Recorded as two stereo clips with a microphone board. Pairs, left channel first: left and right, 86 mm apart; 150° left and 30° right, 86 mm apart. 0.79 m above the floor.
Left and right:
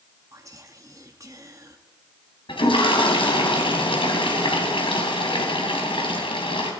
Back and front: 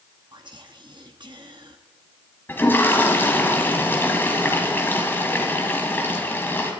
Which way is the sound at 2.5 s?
85° left.